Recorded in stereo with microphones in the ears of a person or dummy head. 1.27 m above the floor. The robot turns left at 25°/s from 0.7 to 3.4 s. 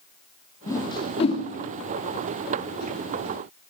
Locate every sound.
0.7 s a whoosh: 20° left (ahead or behind), 2.5 m; by 1.4 s 40° left (ahead or behind), 2.5 m